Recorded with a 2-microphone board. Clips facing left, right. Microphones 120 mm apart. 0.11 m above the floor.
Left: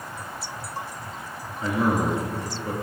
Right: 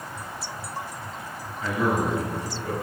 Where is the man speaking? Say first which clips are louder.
Left 1 dB; 25° left (ahead or behind), 1.2 m.